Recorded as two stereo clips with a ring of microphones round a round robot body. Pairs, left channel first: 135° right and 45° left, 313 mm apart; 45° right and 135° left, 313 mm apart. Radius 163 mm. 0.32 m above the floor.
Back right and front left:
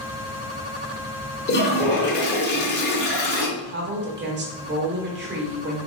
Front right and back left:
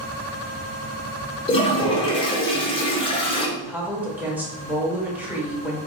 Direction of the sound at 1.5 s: 105° right.